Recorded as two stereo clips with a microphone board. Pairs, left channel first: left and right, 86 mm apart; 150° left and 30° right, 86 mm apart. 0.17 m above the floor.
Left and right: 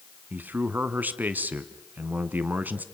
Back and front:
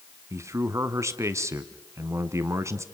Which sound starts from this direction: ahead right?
A man speaking, at 0.3 s.